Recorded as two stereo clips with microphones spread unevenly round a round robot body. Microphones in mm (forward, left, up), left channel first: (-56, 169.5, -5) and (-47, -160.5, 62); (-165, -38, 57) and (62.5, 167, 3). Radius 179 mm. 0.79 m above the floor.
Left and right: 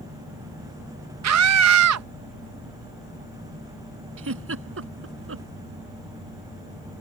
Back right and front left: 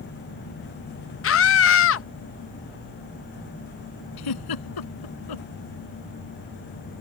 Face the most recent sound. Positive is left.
turn(degrees=-140)